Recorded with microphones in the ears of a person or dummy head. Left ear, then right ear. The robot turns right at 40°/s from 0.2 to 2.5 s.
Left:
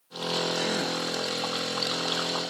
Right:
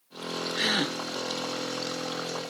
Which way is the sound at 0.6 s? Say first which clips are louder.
Right 1 dB; 65° right (ahead or behind).